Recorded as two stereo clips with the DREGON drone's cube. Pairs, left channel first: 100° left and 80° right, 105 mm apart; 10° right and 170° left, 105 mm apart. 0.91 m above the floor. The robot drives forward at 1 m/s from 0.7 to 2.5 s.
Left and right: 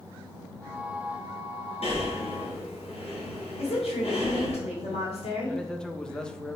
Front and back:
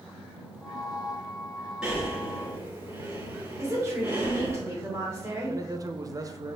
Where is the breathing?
85° left, 3 m; by 4.6 s 100° left, 3 m.